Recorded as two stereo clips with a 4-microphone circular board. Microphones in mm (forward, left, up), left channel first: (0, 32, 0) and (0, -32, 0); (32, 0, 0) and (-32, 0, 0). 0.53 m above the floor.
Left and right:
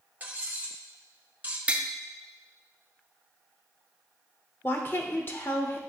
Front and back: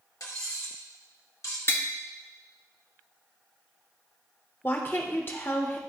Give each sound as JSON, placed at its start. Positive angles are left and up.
{"t": 0.2, "sound": "cutlery clinking", "azimuth_deg": -25, "distance_m": 1.5}
{"t": 1.7, "sound": "tapping", "azimuth_deg": -30, "distance_m": 0.7}
{"t": 4.6, "sound": "a woman speaking", "azimuth_deg": 45, "distance_m": 1.3}